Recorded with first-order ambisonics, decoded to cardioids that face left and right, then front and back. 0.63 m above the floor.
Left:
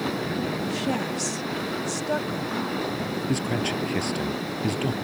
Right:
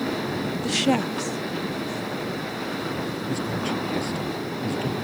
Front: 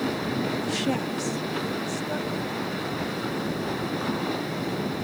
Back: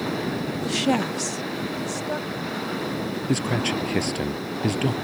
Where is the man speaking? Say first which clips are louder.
Left 1 dB, back 5 dB; 160° left.